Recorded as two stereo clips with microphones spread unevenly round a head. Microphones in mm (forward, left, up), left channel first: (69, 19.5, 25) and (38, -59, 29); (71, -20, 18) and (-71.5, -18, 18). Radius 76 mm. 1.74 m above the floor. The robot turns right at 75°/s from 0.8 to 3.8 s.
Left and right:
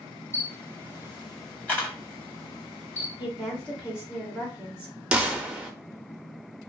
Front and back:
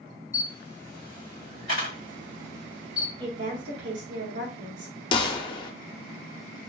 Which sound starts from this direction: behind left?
A woman speaking, at 3.2 s.